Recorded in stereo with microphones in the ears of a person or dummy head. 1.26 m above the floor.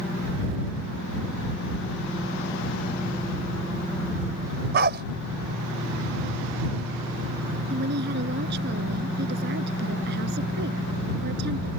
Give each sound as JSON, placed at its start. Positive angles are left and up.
{"t": 4.7, "sound": "a dog barking", "side_deg": -55}
{"t": 7.7, "sound": "a woman speaking", "side_deg": -60}